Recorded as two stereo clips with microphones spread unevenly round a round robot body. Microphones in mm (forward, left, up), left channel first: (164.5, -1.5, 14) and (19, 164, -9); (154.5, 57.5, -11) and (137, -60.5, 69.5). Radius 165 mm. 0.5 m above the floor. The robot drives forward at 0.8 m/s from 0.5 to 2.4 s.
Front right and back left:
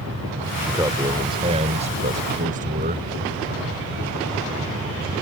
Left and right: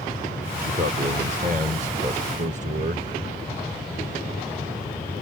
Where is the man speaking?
155° right; by 3.1 s 170° right.